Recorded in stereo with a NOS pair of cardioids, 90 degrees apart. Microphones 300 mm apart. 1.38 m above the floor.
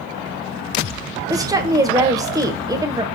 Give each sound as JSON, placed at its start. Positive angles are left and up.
{"t": 1.3, "sound": "a woman speaking", "azimuth_deg": -10, "distance_m": 0.9}